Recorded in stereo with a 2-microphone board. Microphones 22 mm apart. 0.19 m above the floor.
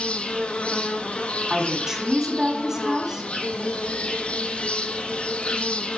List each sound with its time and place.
0.0 s an insect: 60° left (ahead or behind), 0.8 m
1.5 s a woman speaking: 20° right (ahead or behind), 1.6 m